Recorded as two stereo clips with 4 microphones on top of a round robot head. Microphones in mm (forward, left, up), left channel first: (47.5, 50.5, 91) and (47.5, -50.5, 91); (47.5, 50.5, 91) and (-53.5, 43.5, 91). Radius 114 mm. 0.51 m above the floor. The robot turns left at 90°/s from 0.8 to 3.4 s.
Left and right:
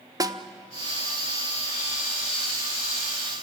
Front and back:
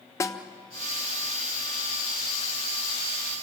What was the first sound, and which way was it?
A snare drum, 50° right.